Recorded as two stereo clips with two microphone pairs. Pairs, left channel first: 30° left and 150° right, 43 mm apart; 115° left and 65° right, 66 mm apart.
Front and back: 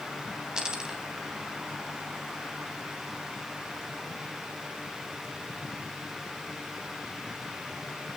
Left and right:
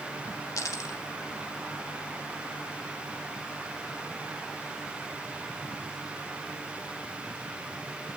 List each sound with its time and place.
0.6 s a dropped coin: 140° left, 3 m